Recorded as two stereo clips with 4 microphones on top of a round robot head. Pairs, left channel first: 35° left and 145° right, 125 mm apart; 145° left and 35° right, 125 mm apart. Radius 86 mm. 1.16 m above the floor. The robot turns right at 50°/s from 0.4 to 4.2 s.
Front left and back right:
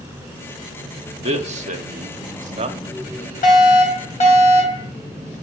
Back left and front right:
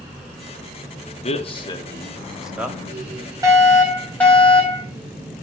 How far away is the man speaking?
About 1.5 m.